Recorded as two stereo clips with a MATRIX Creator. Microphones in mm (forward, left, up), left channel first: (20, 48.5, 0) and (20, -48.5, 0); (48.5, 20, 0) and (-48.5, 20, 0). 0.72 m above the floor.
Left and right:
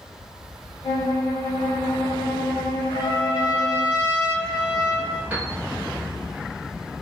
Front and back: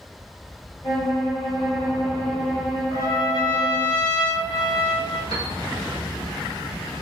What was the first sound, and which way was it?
A violin, 50° left.